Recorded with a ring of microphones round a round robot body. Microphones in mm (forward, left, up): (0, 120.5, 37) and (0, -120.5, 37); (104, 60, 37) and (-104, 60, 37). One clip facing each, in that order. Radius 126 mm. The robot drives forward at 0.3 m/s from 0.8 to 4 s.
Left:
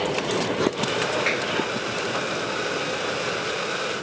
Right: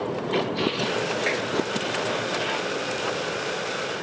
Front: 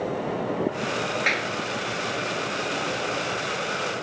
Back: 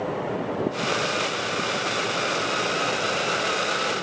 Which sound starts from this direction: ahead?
A clap, at 1.3 s.